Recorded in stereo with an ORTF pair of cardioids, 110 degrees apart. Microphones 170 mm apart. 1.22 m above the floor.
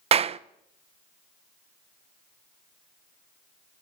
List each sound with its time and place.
0.1 s a clap: 40° right, 0.8 m